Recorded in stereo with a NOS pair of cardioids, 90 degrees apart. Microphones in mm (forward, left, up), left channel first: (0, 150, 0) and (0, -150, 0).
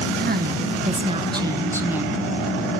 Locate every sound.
0.2 s a woman speaking: 35° right, 1.1 m; by 2.2 s 5° right, 1.8 m